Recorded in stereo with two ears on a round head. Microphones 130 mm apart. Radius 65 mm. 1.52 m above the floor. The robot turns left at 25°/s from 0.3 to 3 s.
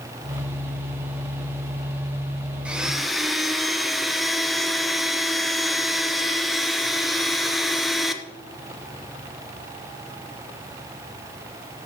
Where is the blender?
10° right (ahead or behind), 0.6 m; by 8.2 s centre (ahead or behind), 0.6 m.